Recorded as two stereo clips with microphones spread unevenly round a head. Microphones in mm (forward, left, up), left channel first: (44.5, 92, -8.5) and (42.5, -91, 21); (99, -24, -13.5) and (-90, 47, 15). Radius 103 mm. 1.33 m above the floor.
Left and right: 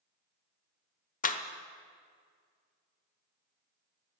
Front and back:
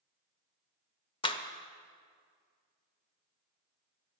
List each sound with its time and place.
1.2 s a clap: 45° left, 1.0 m